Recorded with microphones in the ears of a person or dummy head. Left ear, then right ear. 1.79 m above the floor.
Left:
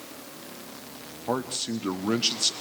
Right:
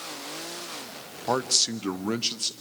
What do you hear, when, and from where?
1.3 s a man speaking: 45° right (ahead or behind), 1.2 m; by 2.5 s 10° left (ahead or behind), 1.3 m